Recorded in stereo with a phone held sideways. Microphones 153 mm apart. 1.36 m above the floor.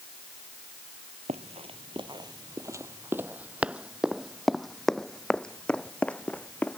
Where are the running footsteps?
45° right (ahead or behind); by 6.8 s 10° left (ahead or behind).